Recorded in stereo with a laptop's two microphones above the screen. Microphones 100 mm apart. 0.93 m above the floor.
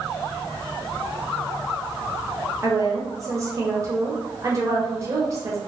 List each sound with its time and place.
2.6 s a woman speaking: 35° right (ahead or behind), 0.7 m